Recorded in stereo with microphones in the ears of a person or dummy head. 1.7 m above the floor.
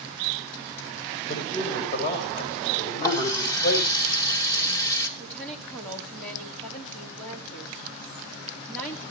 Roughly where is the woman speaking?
Centre.